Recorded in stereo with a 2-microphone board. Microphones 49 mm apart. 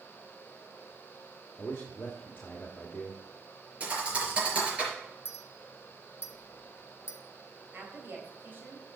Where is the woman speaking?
45° right (ahead or behind), 3.5 m.